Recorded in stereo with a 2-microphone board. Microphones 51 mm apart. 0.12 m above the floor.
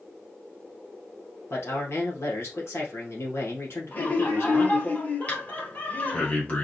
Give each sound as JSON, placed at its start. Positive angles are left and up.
{"t": 1.5, "sound": "a man speaking", "side_deg": 60, "distance_m": 2.0}
{"t": 3.9, "sound": "laughter", "side_deg": 40, "distance_m": 2.0}
{"t": 5.3, "sound": "breathing", "side_deg": 35, "distance_m": 2.0}